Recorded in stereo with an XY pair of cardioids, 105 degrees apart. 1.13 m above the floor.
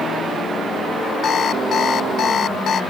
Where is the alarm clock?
50° left.